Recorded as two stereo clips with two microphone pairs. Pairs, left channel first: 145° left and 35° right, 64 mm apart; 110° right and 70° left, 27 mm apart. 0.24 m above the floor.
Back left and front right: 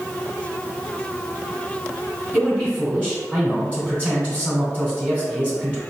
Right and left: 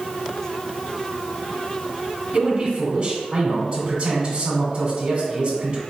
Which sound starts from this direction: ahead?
A man speaking, at 2.3 s.